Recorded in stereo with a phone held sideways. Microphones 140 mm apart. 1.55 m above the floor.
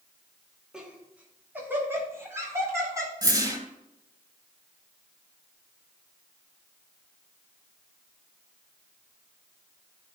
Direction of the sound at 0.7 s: 5° right (ahead or behind).